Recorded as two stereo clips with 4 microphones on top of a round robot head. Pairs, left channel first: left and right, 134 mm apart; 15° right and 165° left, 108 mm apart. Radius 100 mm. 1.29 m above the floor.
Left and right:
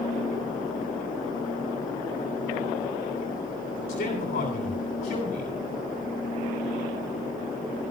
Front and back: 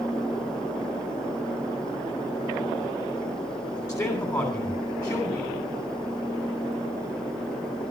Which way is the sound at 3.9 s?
45° left.